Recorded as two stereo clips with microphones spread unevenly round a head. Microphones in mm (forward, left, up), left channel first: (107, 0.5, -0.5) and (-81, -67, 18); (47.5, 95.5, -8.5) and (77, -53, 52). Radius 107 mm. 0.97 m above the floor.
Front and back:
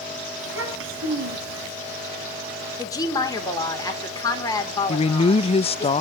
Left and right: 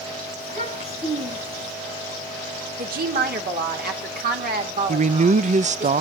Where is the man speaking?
25° right, 0.6 m.